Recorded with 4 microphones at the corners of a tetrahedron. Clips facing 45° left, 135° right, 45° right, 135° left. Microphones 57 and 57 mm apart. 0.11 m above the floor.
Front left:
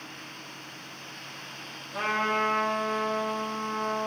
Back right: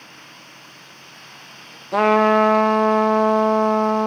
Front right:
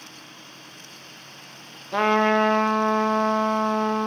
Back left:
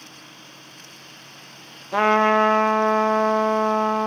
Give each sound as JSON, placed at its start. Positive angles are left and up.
{"t": 1.9, "sound": "a trumpet", "azimuth_deg": -145, "distance_m": 0.6}